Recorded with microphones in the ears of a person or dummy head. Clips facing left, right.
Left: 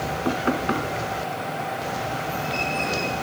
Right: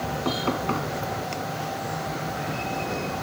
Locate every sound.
0.2 s knocking: 15° left (ahead or behind)